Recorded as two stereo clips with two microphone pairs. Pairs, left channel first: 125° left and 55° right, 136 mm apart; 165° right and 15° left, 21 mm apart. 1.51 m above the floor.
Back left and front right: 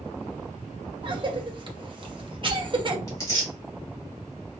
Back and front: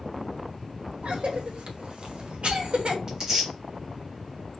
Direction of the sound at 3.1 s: 65° left.